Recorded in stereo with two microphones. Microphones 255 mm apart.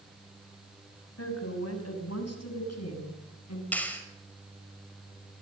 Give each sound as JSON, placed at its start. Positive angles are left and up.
{"t": 1.2, "sound": "a woman speaking", "side_deg": 65, "distance_m": 6.5}
{"t": 3.7, "sound": "a clap", "side_deg": 5, "distance_m": 6.0}